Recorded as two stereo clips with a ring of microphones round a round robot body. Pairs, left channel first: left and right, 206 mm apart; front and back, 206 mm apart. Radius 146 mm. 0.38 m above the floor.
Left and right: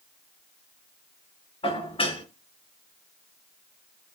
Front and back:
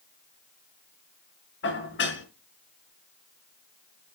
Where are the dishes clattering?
25° left, 3 m.